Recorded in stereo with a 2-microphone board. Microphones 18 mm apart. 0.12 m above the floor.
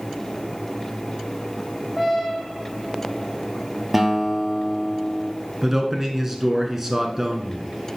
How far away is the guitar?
About 1.3 m.